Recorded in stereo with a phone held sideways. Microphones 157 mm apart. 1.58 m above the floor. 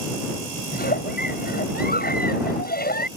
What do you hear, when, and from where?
0.7 s a giggle: 80° left